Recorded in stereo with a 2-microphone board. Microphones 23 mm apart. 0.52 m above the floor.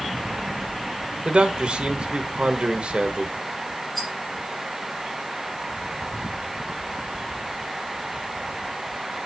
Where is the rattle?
20° left (ahead or behind), 5 m.